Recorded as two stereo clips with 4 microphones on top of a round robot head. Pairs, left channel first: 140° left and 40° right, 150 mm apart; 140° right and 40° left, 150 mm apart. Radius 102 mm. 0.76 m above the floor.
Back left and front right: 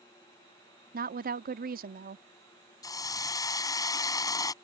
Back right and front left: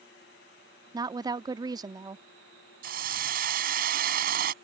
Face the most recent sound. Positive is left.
turn(degrees=70)